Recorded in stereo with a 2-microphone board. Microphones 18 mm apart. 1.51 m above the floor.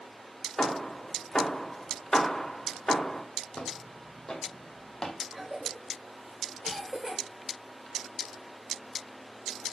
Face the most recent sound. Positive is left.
turn(degrees=-10)  # may be behind; listen again after turning